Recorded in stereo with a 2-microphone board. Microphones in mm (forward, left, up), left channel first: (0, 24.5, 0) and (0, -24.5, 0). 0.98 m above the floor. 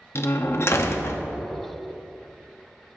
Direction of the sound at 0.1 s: 60° left (ahead or behind).